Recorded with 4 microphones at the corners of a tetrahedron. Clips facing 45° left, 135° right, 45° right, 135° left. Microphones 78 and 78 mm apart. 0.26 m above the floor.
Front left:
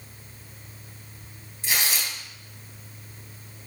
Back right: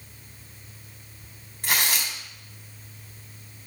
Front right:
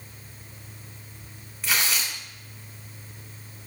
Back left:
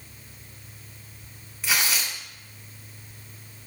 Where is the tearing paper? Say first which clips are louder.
Back right 2 dB, even; 140° right, 2 m.